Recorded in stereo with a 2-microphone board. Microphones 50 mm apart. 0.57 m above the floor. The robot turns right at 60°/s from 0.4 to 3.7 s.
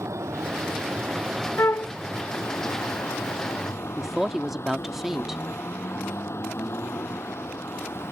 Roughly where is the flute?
Left.